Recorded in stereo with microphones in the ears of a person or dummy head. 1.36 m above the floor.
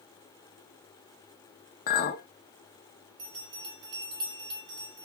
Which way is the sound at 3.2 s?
25° right (ahead or behind).